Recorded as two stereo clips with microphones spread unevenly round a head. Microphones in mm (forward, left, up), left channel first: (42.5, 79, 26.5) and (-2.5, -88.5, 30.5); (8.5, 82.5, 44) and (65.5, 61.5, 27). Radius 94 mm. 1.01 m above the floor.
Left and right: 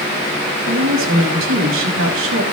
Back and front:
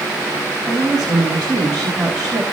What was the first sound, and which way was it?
A woman speaking, 105° right.